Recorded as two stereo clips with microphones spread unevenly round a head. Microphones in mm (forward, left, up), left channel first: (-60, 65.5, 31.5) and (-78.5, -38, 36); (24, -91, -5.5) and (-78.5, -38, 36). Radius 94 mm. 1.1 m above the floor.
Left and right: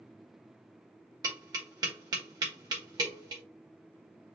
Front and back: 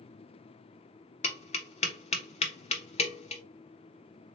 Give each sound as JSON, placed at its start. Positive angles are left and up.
{"t": 1.2, "sound": "tapping", "azimuth_deg": -35, "distance_m": 1.0}